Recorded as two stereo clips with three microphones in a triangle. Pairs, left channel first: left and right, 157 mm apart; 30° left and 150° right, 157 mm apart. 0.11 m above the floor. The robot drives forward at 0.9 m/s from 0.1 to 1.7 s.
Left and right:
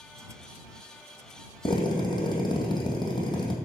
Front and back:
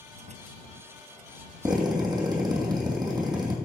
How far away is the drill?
About 2.5 m.